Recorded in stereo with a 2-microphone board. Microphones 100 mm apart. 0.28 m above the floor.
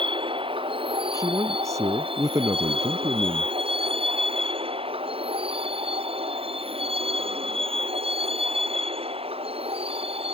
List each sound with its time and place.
0.0 s a vehicle: 55° right (ahead or behind); by 10.3 s 70° right (ahead or behind)
1.1 s a man speaking: 30° right (ahead or behind)